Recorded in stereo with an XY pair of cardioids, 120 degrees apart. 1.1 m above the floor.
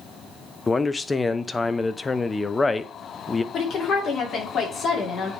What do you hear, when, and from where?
0.7 s a man speaking: 20° left, 0.6 m
3.5 s a woman speaking: 50° left, 2.5 m